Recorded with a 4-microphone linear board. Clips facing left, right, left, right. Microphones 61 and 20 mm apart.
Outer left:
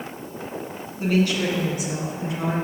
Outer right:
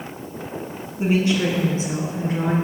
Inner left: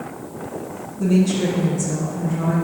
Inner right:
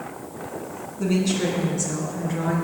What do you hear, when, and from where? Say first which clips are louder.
1.0 s a woman speaking: outer right 2 dB, inner left 4 dB; 20° right (ahead or behind), 1.5 m; by 2.5 s 40° right (ahead or behind), 2 m